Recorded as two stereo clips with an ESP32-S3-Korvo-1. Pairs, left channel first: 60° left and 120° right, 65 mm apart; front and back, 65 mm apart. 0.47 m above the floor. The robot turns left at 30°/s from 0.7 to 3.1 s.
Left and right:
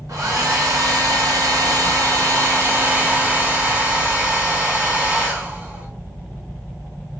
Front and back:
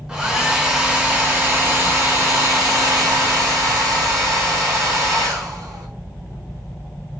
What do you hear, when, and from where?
0.1 s a hair dryer: 105° right, 0.8 m; by 5.9 s 175° right, 0.8 m